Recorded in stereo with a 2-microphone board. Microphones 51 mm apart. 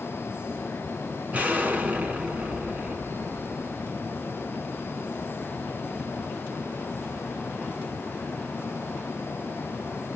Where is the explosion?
25° right (ahead or behind), 1.1 m.